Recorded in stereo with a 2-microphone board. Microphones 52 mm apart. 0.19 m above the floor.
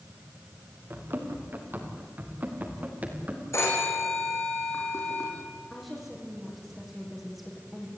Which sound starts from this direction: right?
Running footsteps, at 0.9 s.